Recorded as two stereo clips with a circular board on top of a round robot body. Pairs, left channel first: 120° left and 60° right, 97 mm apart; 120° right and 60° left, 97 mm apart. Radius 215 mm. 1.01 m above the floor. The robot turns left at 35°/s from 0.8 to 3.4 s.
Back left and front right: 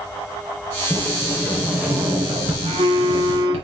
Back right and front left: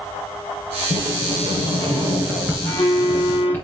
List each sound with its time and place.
0.9 s a sliding door: 40° left, 3 m; by 3.6 s 50° right, 3 m
2.6 s a phone buzzing: 70° right, 2 m; by 3.5 s 100° right, 2 m